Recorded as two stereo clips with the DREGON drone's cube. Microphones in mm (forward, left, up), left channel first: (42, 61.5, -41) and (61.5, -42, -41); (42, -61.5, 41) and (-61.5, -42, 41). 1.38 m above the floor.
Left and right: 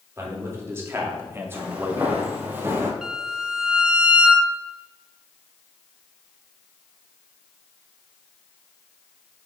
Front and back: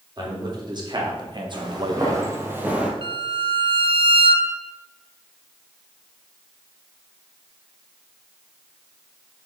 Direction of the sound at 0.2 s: 145° right.